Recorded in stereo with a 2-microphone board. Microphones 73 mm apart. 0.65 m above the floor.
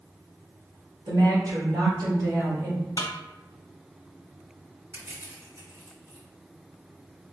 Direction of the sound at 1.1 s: 70° right (ahead or behind).